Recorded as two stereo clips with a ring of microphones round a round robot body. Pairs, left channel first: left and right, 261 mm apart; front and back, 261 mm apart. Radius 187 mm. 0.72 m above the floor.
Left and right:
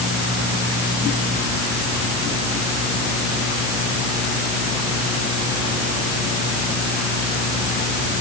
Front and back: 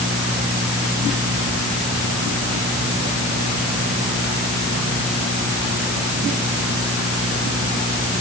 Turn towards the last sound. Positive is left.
No sound to turn to.